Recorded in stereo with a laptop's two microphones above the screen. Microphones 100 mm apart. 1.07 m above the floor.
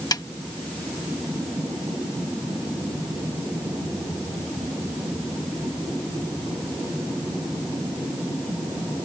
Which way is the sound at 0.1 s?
40° left (ahead or behind).